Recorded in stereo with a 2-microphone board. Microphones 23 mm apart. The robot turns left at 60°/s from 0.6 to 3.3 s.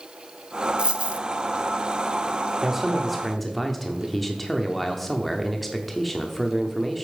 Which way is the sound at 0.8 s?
45° right (ahead or behind).